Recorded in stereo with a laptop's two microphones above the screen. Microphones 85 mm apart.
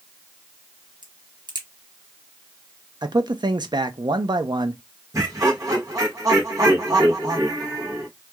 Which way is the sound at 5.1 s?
40° right (ahead or behind).